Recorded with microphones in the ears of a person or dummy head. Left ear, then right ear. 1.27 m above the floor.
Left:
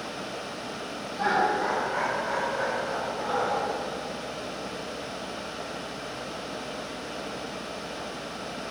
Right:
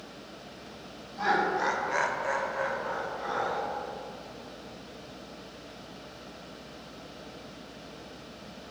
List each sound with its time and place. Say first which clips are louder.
1.2 s laughter: left 2 dB; 10° right (ahead or behind), 1.5 m; by 3.6 s 35° right (ahead or behind), 2.5 m